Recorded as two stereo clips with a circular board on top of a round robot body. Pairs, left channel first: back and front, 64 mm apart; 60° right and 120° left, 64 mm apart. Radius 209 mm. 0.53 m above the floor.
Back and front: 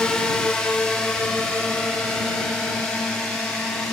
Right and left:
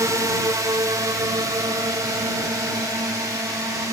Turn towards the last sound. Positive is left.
turn(degrees=100)